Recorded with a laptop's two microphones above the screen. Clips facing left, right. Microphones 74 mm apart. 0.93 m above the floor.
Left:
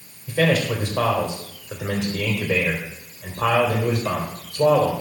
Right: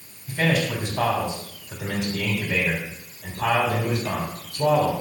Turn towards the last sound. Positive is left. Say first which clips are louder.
# left 3 dB
turn(degrees=60)  # may be behind; listen again after turning